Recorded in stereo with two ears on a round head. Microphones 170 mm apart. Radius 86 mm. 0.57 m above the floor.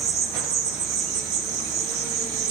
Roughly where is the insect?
Right.